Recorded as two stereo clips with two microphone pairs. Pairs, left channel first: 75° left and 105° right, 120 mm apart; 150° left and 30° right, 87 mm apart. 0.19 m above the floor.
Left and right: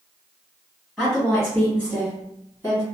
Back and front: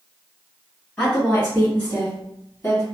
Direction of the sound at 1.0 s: 175° left.